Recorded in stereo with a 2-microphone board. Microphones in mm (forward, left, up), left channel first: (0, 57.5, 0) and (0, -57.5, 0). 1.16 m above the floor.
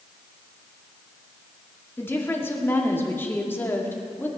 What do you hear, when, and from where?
2.0 s a woman speaking: 20° left (ahead or behind), 2 m